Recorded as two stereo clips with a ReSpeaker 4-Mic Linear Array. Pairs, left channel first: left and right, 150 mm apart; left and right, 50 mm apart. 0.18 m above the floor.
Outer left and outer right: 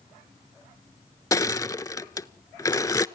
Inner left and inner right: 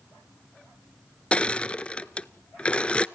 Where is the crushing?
25° left (ahead or behind), 0.5 m.